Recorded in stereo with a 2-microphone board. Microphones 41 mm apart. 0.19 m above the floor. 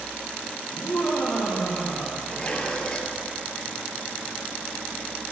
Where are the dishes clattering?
25° left (ahead or behind), 3 m.